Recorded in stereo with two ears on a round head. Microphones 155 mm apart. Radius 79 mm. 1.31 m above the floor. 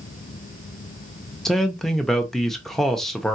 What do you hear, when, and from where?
1.4 s a man speaking: centre (ahead or behind), 0.9 m